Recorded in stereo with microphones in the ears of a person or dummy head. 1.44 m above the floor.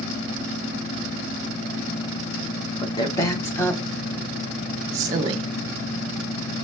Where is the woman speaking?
30° left (ahead or behind), 1.6 m; by 5.4 s 30° right (ahead or behind), 1.1 m.